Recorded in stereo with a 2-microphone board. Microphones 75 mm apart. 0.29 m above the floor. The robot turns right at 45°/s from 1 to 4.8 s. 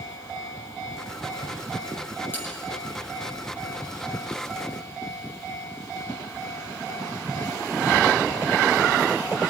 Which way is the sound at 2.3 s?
25° left (ahead or behind).